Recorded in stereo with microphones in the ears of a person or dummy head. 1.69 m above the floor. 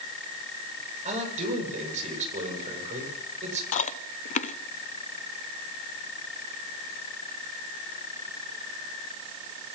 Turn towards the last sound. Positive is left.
turn(degrees=45)  # may be behind; listen again after turning